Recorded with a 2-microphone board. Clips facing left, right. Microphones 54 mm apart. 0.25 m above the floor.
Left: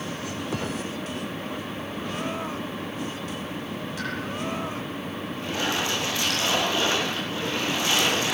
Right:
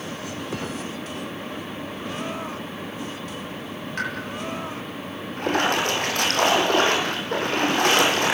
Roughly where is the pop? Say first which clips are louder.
Right 6 dB; right.